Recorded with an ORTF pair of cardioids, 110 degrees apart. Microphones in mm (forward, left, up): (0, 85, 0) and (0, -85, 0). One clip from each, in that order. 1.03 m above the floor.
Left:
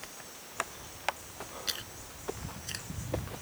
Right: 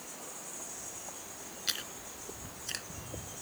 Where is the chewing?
10° right.